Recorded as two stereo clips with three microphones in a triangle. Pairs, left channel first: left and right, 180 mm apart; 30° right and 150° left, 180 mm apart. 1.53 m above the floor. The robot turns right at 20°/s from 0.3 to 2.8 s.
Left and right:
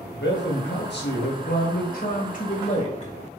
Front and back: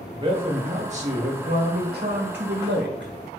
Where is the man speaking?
90° left, 1.7 m; by 3.1 s 140° left, 1.7 m.